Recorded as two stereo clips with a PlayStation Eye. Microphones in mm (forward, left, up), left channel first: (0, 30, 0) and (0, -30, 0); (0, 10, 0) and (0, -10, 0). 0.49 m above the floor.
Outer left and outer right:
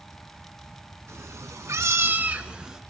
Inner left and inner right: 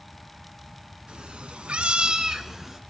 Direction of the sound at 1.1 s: 55° right (ahead or behind).